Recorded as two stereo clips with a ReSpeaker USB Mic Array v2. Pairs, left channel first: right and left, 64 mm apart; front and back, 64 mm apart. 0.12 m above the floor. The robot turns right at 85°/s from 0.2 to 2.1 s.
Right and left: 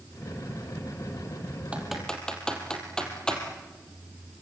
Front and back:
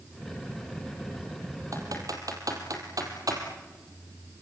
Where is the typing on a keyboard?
160° left, 3.5 m; by 3.4 s 165° right, 3.5 m.